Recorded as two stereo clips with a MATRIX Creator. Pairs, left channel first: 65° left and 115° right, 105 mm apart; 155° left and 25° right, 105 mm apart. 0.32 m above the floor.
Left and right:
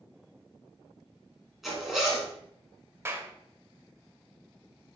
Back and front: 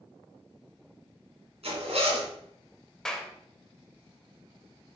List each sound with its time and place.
1.6 s a zipper: 25° right, 2.5 m
3.0 s a clap: 130° right, 0.8 m